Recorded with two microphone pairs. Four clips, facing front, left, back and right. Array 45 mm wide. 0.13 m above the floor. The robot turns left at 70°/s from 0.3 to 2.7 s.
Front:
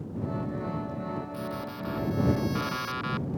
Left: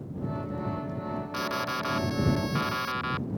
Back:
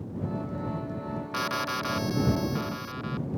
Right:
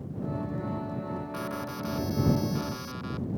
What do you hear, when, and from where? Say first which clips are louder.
1.3 s an alarm: left 4 dB, back 6 dB; 160° left; by 3.4 s 65° left